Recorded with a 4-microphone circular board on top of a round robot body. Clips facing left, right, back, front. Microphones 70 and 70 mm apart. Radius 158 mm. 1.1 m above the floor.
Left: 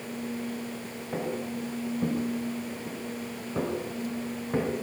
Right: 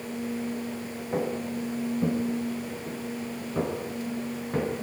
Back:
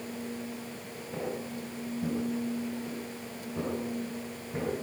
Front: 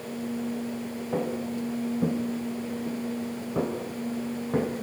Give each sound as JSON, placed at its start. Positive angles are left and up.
{"t": 1.1, "sound": "footsteps", "azimuth_deg": -5, "distance_m": 8.0}